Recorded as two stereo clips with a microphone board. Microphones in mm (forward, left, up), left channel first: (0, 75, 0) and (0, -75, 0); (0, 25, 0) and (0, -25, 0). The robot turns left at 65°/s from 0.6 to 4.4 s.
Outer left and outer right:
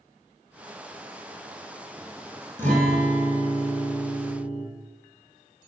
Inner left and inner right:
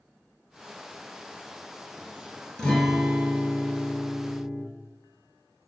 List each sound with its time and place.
2.6 s a guitar: 20° left, 1.7 m; by 4.6 s 100° right, 1.7 m